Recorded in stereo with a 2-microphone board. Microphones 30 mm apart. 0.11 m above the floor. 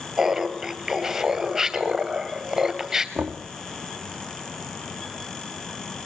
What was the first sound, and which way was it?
Laughter, 15° right (ahead or behind).